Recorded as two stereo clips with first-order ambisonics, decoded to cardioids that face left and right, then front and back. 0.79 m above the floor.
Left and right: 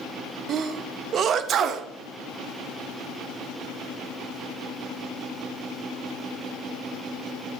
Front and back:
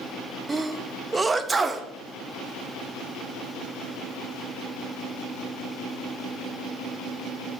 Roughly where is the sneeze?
Right.